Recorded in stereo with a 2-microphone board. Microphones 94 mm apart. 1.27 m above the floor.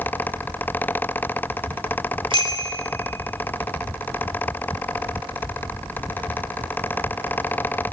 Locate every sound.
2.3 s a bicycle bell: 60° right (ahead or behind), 2.5 m